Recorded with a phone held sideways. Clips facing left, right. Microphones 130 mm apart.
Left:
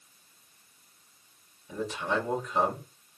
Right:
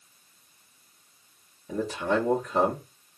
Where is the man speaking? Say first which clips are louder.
Right 4 dB; 55° right (ahead or behind), 1.1 m.